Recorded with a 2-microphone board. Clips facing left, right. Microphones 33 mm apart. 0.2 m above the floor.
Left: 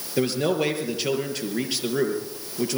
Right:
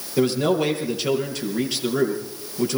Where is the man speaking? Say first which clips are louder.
Right 3 dB; 10° left (ahead or behind), 4.5 m.